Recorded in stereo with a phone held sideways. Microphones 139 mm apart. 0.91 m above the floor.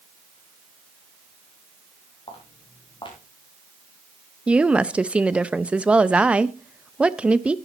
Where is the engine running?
No engine running in this recording.